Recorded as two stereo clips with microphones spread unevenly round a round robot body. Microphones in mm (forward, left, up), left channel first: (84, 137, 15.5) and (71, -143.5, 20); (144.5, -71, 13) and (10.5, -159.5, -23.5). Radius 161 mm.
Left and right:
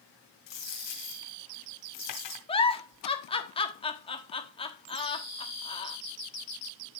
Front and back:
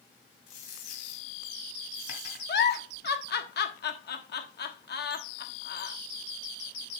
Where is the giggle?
15° left, 1.4 m.